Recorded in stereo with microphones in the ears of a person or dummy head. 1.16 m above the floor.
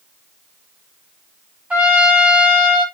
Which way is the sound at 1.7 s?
5° right (ahead or behind).